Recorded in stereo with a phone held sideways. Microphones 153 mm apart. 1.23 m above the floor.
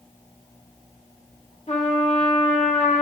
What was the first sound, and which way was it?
A trumpet, 50° left (ahead or behind).